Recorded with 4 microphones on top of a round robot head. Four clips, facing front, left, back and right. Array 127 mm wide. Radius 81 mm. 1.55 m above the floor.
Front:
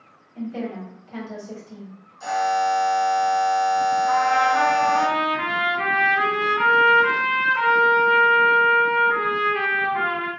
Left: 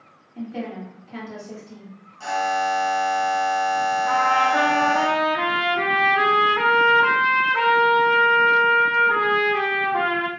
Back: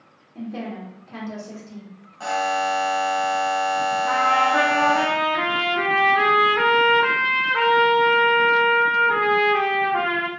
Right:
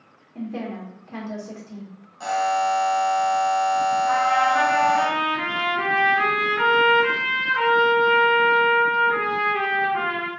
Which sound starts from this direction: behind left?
A trumpet, at 4.1 s.